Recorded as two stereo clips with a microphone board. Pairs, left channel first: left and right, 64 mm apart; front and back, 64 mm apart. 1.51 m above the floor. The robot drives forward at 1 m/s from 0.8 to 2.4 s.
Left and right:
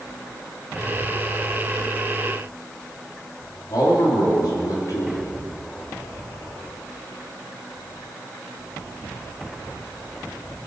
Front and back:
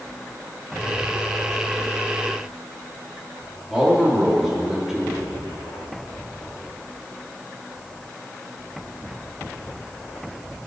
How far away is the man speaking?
About 4 m.